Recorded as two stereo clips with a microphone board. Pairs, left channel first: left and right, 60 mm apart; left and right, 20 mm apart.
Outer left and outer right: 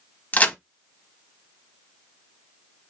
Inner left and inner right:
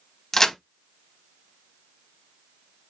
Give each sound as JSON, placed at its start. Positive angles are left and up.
{"t": 0.3, "sound": "a crack", "side_deg": 25, "distance_m": 0.7}